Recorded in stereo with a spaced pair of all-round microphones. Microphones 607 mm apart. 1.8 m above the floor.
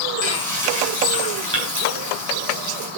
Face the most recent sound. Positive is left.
turn(degrees=-40)  # may be behind; listen again after turning